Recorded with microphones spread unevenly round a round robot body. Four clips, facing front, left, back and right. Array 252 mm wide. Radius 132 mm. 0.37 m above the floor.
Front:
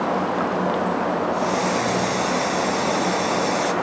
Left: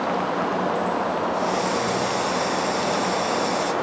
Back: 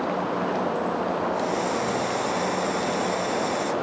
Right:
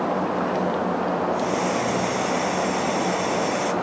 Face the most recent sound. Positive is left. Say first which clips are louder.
# even, front 4 dB
turn(degrees=-35)